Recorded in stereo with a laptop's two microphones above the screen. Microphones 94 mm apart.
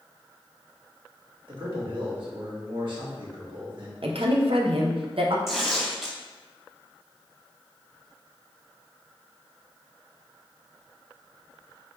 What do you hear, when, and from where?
1.5 s a man speaking: 60° right (ahead or behind), 2.0 m
4.0 s a woman speaking: 75° right (ahead or behind), 0.7 m
5.5 s tearing paper: centre (ahead or behind), 1.1 m